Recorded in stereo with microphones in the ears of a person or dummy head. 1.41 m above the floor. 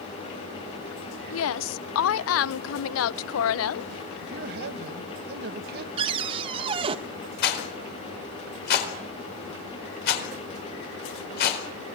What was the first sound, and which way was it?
A woman speaking, 75° left (ahead or behind).